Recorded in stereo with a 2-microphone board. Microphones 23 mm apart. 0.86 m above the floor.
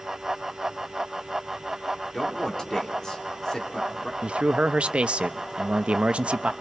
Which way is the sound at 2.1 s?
25° left (ahead or behind).